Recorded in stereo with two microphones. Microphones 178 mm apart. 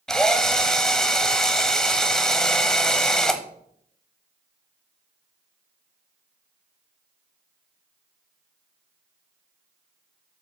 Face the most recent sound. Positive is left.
turn(degrees=5)  # may be behind; listen again after turning